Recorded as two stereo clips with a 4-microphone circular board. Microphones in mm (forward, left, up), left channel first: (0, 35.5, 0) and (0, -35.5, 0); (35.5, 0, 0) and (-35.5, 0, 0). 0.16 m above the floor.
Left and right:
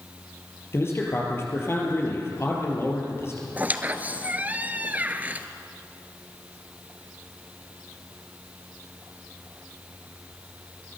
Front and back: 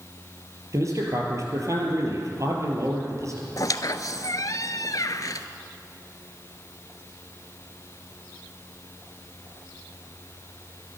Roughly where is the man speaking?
Behind left.